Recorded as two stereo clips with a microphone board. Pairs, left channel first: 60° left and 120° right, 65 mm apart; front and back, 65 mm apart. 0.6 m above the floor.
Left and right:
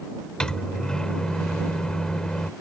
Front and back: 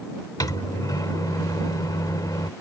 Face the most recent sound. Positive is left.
turn(degrees=-15)